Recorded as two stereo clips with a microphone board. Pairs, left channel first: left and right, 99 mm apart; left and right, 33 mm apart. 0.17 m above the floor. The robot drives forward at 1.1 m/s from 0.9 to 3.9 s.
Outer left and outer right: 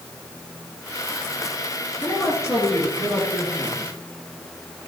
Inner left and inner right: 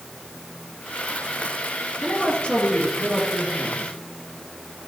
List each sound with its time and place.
2.0 s a man speaking: 35° left (ahead or behind), 2 m; by 3.9 s 20° left (ahead or behind), 4 m